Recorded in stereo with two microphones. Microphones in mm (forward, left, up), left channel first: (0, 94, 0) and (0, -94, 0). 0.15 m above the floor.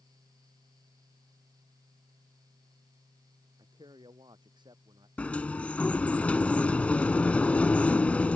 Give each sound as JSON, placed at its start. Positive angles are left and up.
{"t": 3.6, "sound": "a man speaking", "side_deg": -25}
{"t": 5.2, "sound": "a sliding door", "side_deg": 5}